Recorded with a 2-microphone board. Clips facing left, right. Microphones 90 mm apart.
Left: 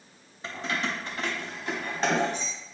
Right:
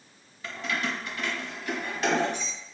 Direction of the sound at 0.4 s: 30° left (ahead or behind).